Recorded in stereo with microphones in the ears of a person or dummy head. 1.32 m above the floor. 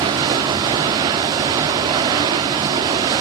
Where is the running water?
20° right (ahead or behind), 0.9 m.